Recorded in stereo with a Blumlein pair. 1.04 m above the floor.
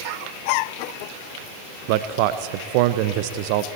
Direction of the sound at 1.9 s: 45° right.